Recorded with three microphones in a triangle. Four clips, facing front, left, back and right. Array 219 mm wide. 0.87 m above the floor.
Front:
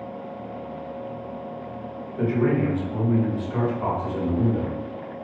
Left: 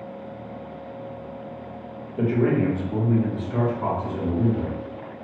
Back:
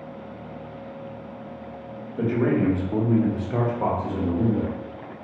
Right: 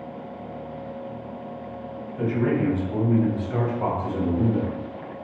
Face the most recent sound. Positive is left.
turn(degrees=-115)